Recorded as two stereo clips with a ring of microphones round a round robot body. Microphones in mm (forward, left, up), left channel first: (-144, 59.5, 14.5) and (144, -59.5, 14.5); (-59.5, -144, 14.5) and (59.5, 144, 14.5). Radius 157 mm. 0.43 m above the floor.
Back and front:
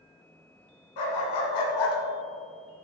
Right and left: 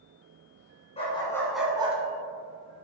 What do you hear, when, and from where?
1.0 s a dog barking: 175° left, 2.5 m; by 2.0 s 135° left, 1.4 m